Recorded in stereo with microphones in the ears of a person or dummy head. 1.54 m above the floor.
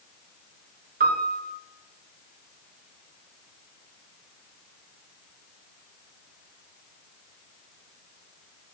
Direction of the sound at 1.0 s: 50° right (ahead or behind).